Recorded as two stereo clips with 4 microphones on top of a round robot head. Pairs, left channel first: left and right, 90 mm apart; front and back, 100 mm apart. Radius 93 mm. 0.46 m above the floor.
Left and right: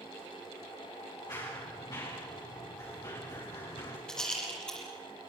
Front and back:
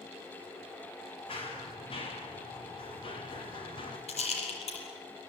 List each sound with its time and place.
1.3 s running footsteps: 30° left, 9.5 m; by 4.0 s 35° left, 8 m
4.1 s a rattle: 10° left, 7 m